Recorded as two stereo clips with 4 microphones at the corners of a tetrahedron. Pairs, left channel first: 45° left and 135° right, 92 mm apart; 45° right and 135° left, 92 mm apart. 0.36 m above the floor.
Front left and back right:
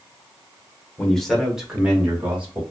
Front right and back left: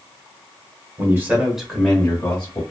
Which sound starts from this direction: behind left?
A man speaking, at 1.0 s.